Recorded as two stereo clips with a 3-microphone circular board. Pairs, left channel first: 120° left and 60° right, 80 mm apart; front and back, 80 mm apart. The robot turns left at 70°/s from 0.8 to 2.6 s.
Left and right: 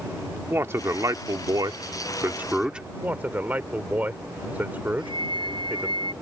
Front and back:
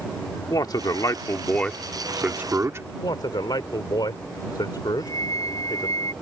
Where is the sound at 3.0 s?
5° left.